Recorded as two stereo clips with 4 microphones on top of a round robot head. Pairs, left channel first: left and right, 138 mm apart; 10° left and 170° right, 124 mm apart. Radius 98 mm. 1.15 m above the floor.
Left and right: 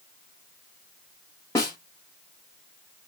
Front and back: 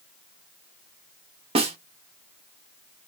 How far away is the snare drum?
About 0.9 m.